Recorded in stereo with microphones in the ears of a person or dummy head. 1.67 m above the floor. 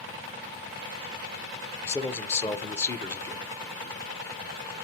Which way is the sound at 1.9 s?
10° left (ahead or behind).